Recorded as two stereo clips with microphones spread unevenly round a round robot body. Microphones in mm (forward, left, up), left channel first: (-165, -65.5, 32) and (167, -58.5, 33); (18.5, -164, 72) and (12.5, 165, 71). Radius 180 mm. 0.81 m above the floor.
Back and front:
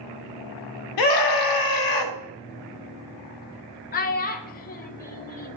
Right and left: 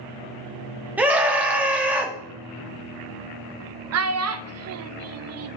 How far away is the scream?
About 1.8 m.